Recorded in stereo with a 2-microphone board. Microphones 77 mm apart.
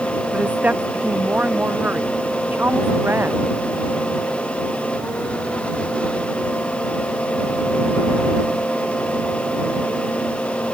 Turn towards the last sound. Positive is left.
turn(degrees=-30)  # may be behind; listen again after turning